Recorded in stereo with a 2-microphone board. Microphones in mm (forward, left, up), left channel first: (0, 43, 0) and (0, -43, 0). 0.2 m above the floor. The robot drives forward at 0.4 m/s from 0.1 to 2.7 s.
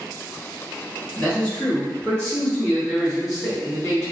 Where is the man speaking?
15° left (ahead or behind), 1.4 m.